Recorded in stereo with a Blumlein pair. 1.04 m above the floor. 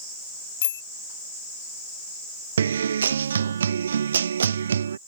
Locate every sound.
0.6 s a bicycle bell: 60° left
2.6 s a guitar: 70° right